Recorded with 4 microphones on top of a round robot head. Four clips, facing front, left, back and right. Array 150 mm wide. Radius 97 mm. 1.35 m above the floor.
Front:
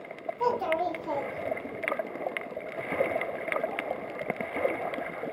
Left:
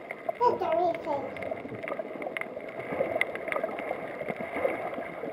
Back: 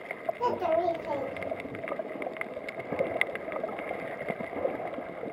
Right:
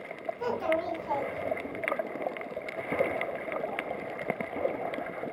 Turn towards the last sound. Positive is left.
turn(degrees=100)